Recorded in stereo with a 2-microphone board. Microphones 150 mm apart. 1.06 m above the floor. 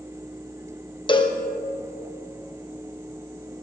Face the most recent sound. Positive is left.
turn(degrees=35)  # may be behind; listen again after turning